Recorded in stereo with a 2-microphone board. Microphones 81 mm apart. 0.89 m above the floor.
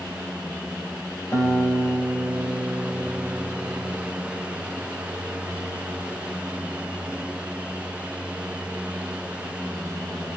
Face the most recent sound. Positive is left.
turn(degrees=45)  # may be behind; listen again after turning